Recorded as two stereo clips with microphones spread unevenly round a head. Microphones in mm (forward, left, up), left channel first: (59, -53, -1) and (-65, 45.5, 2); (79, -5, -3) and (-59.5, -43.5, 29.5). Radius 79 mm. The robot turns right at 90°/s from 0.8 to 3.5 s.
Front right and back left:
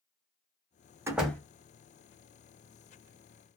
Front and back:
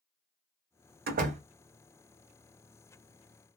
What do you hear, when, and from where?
1.1 s a door slam: 145° right, 0.8 m; by 1.4 s 110° right, 0.8 m